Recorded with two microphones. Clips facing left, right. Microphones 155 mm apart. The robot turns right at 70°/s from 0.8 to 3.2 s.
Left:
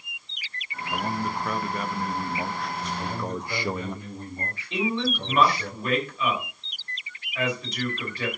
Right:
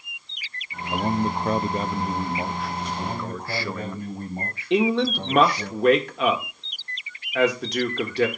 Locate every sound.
0.9 s a man speaking: 125° right, 0.5 m; by 4.0 s 35° left, 0.5 m
3.0 s a man speaking: 40° right (ahead or behind), 5.5 m; by 5.7 s 55° right (ahead or behind), 5.5 m
4.7 s a man speaking: 75° right (ahead or behind), 1.7 m